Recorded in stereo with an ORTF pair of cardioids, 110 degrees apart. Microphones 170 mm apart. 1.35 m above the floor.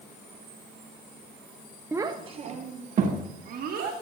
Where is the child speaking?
10° right, 0.6 m; by 3.9 s 55° right, 2 m.